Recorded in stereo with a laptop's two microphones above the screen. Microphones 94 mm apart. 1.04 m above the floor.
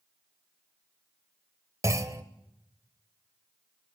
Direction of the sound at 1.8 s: 30° right (ahead or behind).